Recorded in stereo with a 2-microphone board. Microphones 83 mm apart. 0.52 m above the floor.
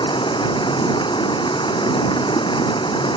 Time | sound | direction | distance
0.0 | running water | 90° left | ?